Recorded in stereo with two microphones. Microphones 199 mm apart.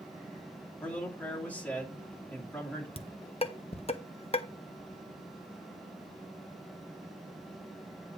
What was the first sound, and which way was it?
A man speaking, 5° left (ahead or behind).